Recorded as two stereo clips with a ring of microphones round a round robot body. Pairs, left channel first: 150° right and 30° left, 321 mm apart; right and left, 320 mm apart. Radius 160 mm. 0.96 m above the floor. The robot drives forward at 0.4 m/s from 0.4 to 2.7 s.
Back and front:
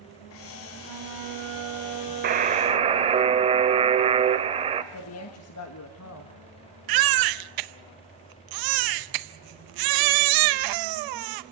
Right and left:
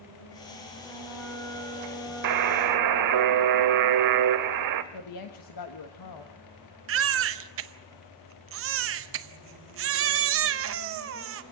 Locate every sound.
0.8 s a flute: 5° right, 3 m; by 3.2 s 10° right, 2 m
2.2 s a buzzer: 90° left, 1.0 m; by 4.8 s 100° left, 1.0 m
4.9 s a woman speaking: 110° right, 1.5 m
6.9 s a baby crying: 40° left, 0.8 m